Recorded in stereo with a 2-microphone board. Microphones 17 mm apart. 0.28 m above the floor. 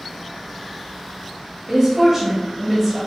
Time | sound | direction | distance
1.7 | a woman speaking | 25° right (ahead or behind) | 1.0 m